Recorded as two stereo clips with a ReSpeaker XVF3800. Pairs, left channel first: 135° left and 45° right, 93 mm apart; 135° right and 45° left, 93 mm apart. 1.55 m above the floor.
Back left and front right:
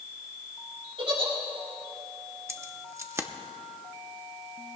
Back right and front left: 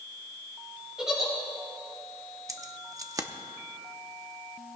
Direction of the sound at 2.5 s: 5° left.